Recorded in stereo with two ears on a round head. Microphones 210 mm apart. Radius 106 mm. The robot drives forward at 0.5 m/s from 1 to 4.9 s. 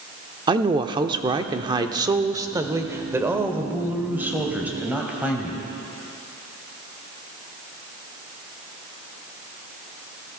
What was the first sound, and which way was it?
A woman speaking, 20° right (ahead or behind).